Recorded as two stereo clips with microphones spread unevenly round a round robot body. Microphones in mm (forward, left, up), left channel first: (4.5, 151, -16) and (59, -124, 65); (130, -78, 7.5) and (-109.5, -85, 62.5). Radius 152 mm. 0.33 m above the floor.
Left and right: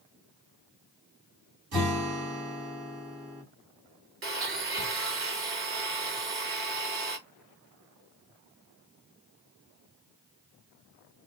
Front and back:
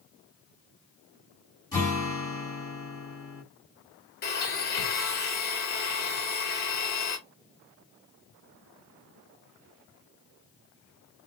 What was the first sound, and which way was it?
A guitar, 70° right.